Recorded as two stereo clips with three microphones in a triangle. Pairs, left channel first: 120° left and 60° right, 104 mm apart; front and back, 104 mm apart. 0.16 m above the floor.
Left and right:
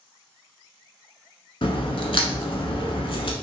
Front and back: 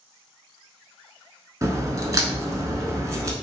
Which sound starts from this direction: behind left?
A crack, at 1.6 s.